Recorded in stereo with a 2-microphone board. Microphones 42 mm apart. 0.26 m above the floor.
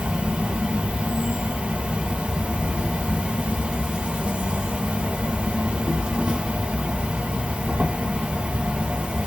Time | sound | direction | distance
0.0 | an insect | 30° right (ahead or behind) | 0.7 m